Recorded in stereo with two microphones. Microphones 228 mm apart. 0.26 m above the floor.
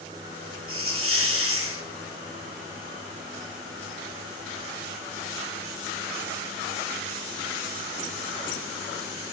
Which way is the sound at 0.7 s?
70° right (ahead or behind).